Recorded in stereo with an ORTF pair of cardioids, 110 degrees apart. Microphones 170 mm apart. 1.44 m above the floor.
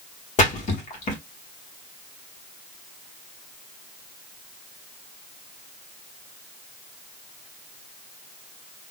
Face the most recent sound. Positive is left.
turn(degrees=45)